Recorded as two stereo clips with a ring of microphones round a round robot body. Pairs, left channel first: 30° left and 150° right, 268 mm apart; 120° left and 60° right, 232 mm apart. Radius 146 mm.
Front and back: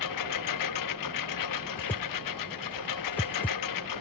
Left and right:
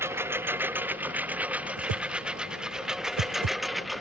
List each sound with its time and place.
0.0 s a lawn mower: 20° left; by 4.0 s 30° left
1.8 s a whoosh: 55° right